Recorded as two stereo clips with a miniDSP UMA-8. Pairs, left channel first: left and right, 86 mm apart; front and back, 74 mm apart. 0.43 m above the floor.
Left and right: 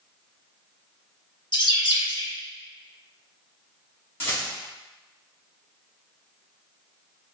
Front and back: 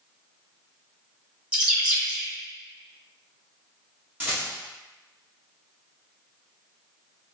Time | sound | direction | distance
1.5 | a bird | 105° left | 0.9 m
4.2 | a rattle | 130° left | 1.7 m